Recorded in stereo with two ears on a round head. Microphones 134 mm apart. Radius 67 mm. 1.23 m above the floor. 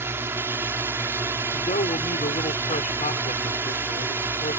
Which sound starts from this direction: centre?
A drone, at 0.0 s.